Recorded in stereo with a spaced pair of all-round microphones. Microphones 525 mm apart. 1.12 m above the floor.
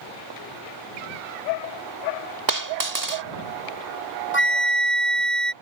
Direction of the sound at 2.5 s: 35° right (ahead or behind).